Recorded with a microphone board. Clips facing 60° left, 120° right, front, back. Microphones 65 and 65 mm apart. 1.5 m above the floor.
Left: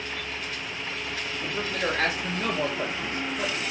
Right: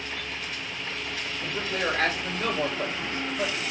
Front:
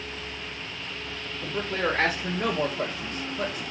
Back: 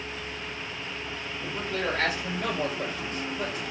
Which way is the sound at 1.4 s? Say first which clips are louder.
Even, front 3 dB; 35° right.